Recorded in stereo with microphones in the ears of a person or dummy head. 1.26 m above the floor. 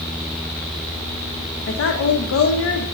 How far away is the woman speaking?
About 0.5 m.